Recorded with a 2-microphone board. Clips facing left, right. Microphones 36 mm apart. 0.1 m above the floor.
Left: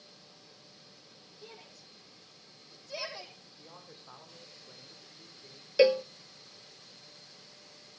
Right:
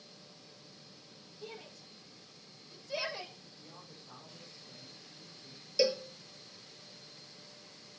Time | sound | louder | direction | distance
1.4 | a shout | right 4 dB | centre (ahead or behind) | 4.5 m
3.6 | a man speaking | left 3 dB | 35° left (ahead or behind) | 5.5 m
5.8 | a cowbell | left 7 dB | 40° left (ahead or behind) | 0.6 m